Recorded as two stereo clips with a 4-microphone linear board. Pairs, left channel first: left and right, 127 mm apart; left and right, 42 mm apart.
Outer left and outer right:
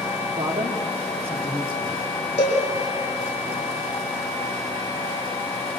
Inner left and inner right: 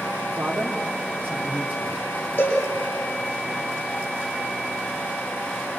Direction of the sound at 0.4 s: 60° right (ahead or behind).